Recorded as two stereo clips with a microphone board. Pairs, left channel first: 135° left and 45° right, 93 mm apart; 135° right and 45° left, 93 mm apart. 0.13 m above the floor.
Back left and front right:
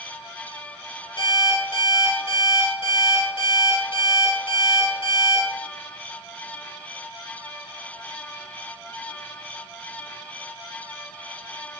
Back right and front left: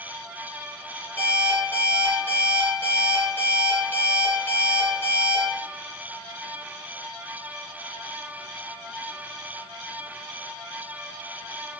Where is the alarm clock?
160° left, 1.4 m.